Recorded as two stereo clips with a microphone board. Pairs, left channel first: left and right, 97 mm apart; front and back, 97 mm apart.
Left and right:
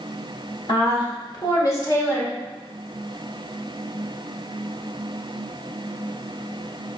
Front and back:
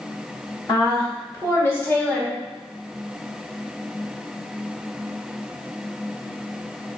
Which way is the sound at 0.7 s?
50° left.